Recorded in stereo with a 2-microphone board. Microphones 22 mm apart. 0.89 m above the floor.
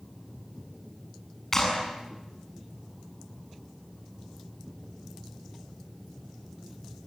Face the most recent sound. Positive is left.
turn(degrees=20)  # may be behind; listen again after turning